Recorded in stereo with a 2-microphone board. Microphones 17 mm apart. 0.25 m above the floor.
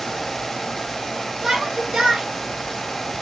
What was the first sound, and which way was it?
A shout, 75° right (ahead or behind).